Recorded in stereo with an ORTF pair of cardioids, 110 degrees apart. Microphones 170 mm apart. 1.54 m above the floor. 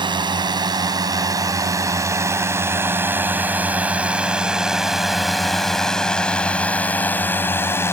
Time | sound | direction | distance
0.0 | a drone | 25° right | ?